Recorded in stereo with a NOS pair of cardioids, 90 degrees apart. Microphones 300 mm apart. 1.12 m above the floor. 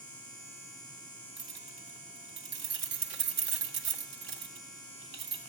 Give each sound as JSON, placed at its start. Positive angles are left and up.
{"t": 1.4, "sound": "keys jangling", "azimuth_deg": -60, "distance_m": 1.9}